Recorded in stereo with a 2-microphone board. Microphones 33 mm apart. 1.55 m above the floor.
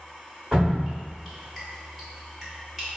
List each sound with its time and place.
0.5 s dripping: 10° right (ahead or behind), 1.6 m